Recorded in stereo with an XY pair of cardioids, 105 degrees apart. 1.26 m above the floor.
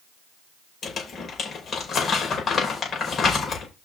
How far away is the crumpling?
About 5.5 m.